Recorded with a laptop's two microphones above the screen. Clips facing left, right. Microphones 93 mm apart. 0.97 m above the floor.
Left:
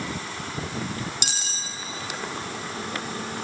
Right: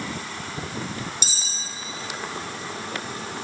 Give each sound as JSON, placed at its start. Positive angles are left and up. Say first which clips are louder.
{"t": 1.2, "sound": "cutlery clinking", "louder": "left 2 dB", "side_deg": 65, "distance_m": 0.8}